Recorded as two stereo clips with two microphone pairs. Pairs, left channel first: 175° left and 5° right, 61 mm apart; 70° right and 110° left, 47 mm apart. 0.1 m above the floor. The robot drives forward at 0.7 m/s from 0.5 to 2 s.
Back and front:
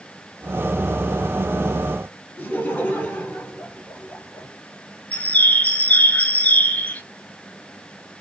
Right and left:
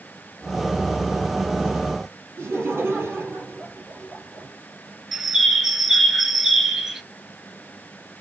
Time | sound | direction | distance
2.4 | laughter | 115° left | 2.5 m
5.1 | a bird | straight behind | 0.6 m